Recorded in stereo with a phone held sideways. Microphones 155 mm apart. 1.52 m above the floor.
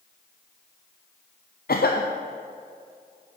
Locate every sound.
1.7 s a cough: 75° left (ahead or behind), 0.6 m